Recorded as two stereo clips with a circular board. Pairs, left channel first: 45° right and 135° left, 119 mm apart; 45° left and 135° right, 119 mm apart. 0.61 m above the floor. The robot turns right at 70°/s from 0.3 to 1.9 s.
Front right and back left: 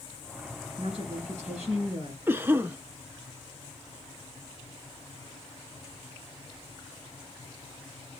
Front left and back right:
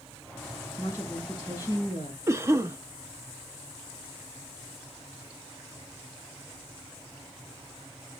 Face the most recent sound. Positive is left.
turn(degrees=-175)